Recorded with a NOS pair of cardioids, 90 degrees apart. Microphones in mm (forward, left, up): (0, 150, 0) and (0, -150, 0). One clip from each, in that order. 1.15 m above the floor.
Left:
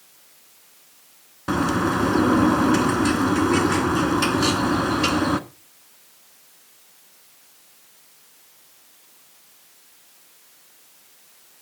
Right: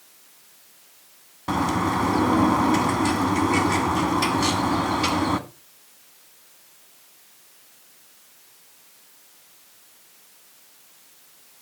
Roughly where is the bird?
Ahead.